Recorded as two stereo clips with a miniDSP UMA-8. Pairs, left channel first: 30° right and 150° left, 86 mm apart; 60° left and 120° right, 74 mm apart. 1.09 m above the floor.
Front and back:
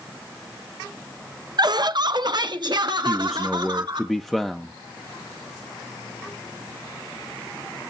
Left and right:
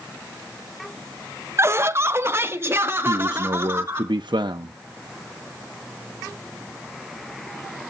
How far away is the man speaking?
About 0.6 m.